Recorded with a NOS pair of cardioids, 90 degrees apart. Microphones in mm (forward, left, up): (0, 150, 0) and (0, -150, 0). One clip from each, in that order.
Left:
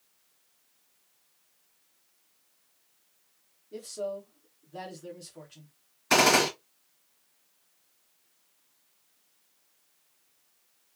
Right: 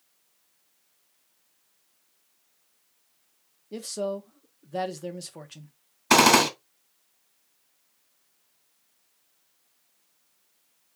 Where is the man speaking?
55° right, 1.1 m.